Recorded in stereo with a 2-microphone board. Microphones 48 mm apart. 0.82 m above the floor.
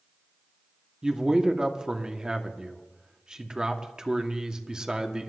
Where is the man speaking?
15° right (ahead or behind), 1.3 m.